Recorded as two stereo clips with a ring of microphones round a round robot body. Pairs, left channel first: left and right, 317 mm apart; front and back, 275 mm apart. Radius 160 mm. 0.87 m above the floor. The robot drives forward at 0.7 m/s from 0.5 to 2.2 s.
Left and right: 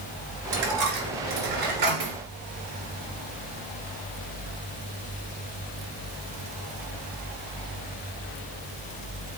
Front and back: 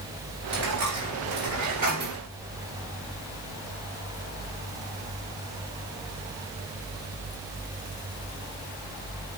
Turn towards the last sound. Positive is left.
turn(degrees=-120)